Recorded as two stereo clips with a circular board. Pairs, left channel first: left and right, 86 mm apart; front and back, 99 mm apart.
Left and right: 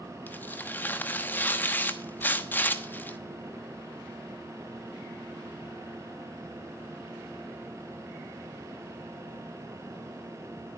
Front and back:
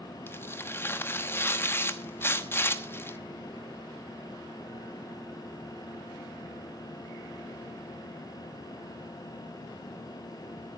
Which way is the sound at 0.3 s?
40° left.